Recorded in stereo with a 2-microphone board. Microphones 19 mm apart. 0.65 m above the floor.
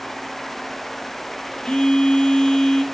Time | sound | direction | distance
1.6 | a phone buzzing | 25° left (ahead or behind) | 6 m